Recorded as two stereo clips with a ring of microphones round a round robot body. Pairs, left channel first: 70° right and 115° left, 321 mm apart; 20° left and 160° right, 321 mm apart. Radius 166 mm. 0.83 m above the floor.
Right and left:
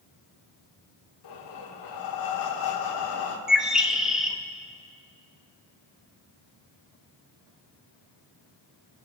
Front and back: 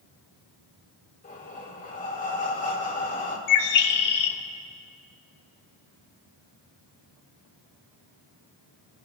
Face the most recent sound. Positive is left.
turn(degrees=25)